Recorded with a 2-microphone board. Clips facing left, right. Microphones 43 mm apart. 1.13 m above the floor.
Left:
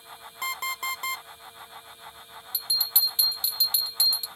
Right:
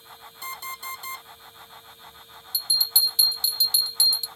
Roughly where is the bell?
Left.